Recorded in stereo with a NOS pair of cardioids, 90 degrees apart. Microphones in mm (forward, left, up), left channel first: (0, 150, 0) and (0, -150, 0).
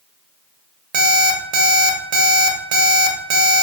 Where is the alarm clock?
65° right, 0.6 m.